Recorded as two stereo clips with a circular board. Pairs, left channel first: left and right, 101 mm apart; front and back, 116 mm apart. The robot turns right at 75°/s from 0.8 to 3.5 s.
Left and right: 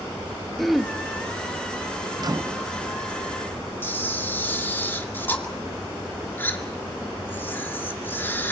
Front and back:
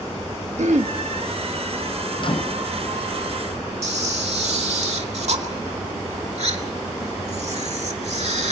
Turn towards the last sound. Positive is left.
turn(degrees=160)